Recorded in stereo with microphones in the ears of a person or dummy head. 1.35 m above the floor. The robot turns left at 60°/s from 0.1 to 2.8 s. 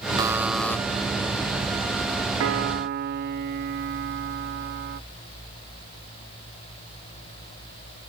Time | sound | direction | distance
0.2 | a buzzer | 160° right | ?
2.4 | a piano | 60° right (ahead or behind) | ?